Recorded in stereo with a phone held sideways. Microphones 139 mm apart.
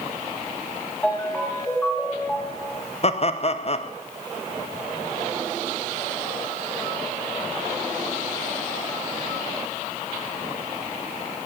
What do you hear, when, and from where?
1.0 s a ringtone: 10° left (ahead or behind), 3.5 m
3.0 s laughter: 45° left (ahead or behind), 0.9 m